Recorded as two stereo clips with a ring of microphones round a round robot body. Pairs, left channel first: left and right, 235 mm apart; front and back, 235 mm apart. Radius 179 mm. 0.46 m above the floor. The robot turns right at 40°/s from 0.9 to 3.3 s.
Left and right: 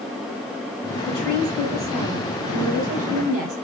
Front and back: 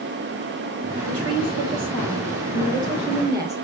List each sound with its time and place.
1.1 s a woman speaking: 165° left, 3 m; by 3.5 s 105° right, 3 m